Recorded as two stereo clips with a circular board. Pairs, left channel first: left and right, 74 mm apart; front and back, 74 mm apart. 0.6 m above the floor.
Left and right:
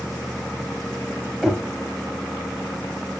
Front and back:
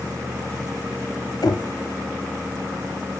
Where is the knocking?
10° right, 1.8 m.